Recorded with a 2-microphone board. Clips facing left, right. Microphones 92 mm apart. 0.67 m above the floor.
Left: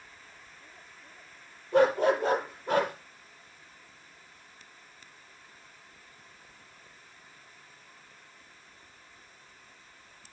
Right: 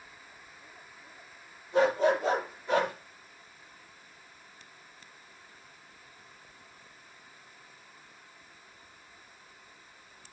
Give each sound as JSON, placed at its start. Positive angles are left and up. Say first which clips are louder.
{"t": 1.7, "sound": "a dog barking", "louder": "left 2 dB", "side_deg": 55, "distance_m": 8.0}